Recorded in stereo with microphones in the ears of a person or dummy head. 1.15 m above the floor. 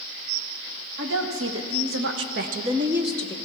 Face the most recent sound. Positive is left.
turn(degrees=15)  # may be behind; listen again after turning